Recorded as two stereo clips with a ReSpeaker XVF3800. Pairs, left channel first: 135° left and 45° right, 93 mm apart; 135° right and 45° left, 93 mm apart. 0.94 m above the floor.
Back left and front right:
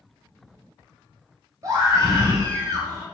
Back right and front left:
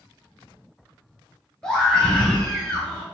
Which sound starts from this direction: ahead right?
A scream, at 1.6 s.